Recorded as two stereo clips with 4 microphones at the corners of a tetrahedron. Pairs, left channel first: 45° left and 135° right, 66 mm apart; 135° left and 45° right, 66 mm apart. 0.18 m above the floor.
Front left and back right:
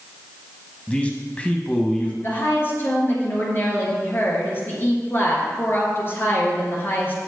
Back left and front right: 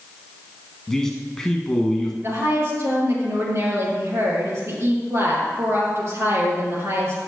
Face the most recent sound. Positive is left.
turn(degrees=-5)